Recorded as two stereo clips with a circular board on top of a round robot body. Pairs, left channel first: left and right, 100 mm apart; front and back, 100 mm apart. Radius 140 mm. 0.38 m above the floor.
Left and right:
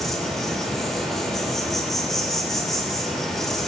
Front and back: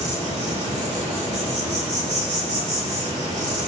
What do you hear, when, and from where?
0.0 s an insect: straight behind, 4.5 m